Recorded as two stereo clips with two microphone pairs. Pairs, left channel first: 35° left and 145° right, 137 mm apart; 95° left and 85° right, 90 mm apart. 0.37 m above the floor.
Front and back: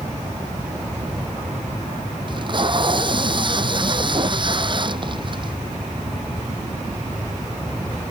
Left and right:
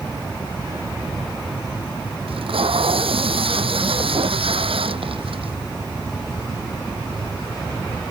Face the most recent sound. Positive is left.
turn(degrees=-95)